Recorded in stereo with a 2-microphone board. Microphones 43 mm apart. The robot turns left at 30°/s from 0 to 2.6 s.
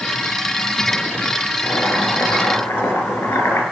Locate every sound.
1.6 s boiling: 60° left (ahead or behind), 9 m; by 3.6 s 80° left, 9 m